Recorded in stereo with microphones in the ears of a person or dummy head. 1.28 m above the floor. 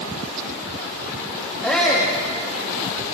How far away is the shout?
About 2 m.